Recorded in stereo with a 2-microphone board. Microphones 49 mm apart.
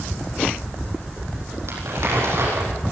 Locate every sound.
1.7 s crumpling: 60° right (ahead or behind), 8.5 m